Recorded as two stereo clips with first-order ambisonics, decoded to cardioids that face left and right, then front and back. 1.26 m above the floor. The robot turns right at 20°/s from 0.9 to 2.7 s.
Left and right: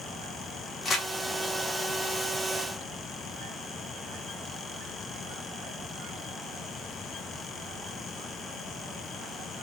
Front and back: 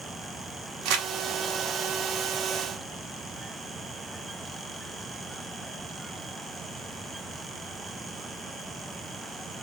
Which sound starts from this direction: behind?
Crumpling, at 0.8 s.